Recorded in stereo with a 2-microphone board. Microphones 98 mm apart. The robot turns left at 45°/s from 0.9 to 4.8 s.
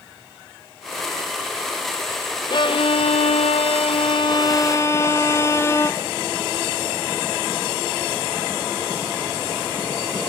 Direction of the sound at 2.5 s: 130° left.